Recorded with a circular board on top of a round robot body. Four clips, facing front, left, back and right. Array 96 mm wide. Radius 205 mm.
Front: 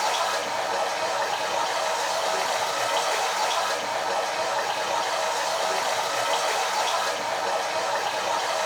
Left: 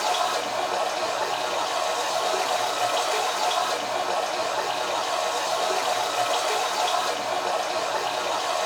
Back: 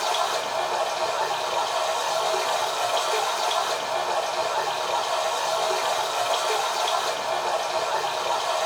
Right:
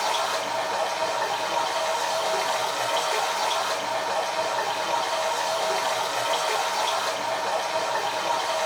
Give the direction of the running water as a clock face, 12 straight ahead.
1 o'clock.